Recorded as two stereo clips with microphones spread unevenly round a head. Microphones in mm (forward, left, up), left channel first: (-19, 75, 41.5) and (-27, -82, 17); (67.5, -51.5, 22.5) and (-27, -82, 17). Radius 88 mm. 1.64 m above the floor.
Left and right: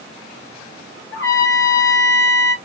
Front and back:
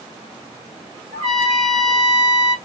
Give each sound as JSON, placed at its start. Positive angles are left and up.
{"t": 1.1, "sound": "a trumpet", "azimuth_deg": 155, "distance_m": 2.0}